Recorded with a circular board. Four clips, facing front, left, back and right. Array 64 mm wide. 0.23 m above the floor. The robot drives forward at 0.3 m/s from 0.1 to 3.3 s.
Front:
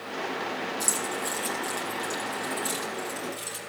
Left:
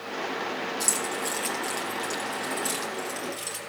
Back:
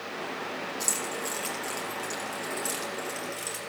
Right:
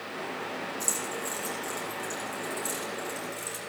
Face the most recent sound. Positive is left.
turn(degrees=125)